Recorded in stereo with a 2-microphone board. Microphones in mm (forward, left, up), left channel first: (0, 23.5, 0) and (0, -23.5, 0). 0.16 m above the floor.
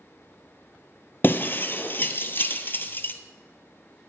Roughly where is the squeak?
I don't hear a squeak.